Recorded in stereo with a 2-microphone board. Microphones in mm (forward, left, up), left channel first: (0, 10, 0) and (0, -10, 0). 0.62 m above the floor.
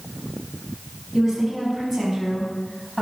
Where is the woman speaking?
15° right (ahead or behind), 6 m; by 3.0 s 5° right (ahead or behind), 4.5 m.